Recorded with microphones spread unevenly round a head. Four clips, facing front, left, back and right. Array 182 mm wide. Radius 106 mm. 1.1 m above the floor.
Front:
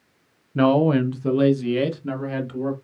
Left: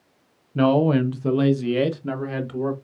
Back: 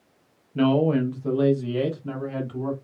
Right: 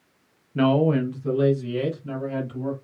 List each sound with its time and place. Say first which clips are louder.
0.6 s a man speaking: left 2 dB, front 3 dB; 15° right, 0.7 m; by 2.7 s 60° left, 1.8 m